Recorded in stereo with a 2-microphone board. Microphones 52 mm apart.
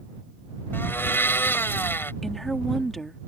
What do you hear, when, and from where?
0.7 s a blender: 45° left (ahead or behind)
2.2 s a woman speaking: 5° left (ahead or behind)